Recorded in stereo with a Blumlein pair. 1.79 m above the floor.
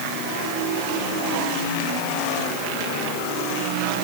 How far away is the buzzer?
No buzzer in this recording.